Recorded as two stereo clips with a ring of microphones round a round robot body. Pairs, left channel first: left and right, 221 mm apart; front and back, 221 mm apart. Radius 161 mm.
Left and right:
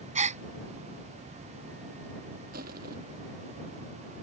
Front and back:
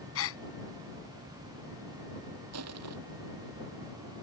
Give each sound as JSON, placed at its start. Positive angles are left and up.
{"t": 0.1, "sound": "a gasp", "azimuth_deg": -30}
{"t": 2.5, "sound": "crushing", "azimuth_deg": -155}